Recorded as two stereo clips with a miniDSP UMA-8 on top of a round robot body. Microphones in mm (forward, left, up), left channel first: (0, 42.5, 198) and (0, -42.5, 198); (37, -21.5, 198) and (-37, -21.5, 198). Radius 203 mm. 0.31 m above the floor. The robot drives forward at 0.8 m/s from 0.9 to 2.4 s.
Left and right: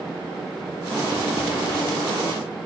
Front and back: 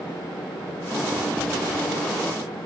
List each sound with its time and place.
Only background noise.